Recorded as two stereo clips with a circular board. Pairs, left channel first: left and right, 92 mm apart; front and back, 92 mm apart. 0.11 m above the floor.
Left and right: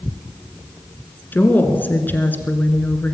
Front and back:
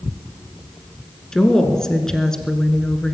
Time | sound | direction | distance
1.3 | a woman speaking | 70° left | 1.4 m